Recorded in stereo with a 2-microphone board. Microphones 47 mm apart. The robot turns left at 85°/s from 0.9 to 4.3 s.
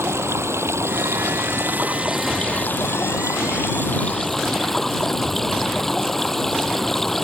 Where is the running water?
65° right; by 7.2 s 5° left.